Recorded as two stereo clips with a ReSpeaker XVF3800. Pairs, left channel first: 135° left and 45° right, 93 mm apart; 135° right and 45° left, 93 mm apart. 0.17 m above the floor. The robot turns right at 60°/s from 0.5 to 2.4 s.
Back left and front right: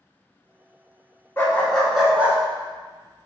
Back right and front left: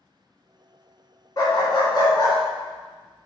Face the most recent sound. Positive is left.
turn(degrees=-105)